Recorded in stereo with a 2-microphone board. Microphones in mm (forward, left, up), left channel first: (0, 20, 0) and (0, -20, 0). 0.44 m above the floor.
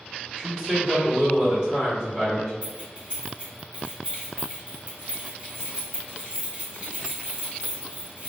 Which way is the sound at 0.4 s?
20° right (ahead or behind).